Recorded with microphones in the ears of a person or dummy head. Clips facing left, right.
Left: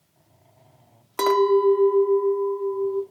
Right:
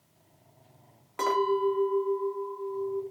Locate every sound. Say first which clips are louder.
1.2 s a clink: left 9 dB; 55° left (ahead or behind), 0.6 m